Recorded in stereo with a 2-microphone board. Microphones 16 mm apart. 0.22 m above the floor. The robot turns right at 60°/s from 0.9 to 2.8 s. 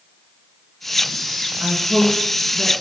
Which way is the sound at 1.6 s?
60° right (ahead or behind).